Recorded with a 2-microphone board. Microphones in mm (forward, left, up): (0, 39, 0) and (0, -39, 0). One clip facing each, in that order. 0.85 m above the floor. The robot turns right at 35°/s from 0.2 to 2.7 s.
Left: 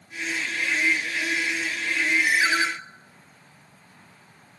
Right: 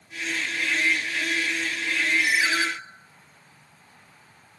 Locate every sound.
2.2 s a ringtone: 30° left (ahead or behind), 0.9 m; by 2.7 s 15° left (ahead or behind), 0.9 m